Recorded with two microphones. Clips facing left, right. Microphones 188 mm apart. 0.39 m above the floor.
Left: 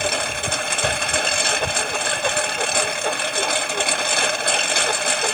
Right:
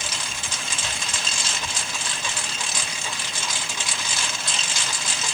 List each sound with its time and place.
0.0 s a lawn mower: 60° left (ahead or behind)